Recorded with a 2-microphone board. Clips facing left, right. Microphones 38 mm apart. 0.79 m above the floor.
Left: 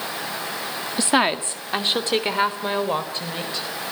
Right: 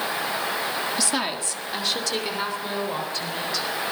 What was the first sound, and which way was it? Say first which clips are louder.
A woman speaking: left 6 dB; 30° left (ahead or behind).